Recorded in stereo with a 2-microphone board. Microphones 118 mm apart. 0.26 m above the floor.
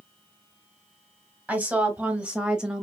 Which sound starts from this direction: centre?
A woman speaking, at 1.5 s.